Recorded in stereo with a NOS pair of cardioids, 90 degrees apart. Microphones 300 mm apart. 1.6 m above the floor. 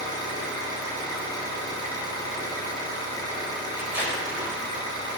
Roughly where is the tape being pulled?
Ahead.